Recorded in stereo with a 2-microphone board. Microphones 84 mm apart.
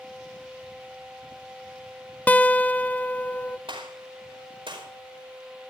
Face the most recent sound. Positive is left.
turn(degrees=-80)